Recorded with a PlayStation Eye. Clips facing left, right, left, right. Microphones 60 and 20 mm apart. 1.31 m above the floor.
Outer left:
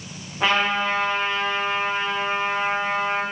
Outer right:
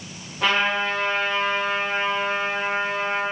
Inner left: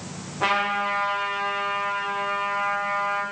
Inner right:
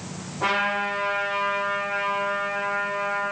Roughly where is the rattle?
No rattle in this recording.